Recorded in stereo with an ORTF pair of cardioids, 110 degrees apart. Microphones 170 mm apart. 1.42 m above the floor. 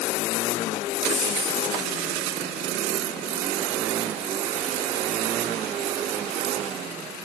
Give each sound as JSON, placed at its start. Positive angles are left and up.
{"t": 1.1, "sound": "a dropped coin", "azimuth_deg": 10, "distance_m": 2.0}